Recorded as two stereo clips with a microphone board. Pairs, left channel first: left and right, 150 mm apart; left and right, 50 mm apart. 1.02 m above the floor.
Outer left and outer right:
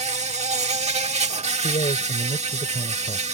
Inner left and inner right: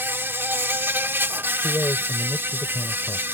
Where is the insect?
50° right (ahead or behind).